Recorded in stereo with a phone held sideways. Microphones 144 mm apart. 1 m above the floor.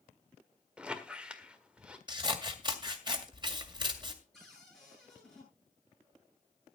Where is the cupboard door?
5° left (ahead or behind), 9.5 m.